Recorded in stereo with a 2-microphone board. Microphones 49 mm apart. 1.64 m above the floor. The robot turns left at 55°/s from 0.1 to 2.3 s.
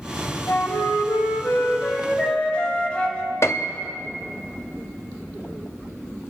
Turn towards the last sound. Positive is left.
turn(degrees=65)  # may be behind; listen again after turning